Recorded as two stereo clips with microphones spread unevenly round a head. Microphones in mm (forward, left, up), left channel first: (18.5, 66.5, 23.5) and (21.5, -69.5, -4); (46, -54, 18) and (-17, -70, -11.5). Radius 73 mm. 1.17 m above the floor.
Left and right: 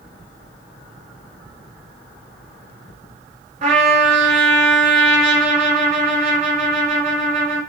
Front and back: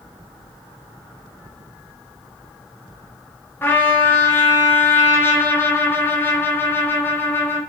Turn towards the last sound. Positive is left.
turn(degrees=-50)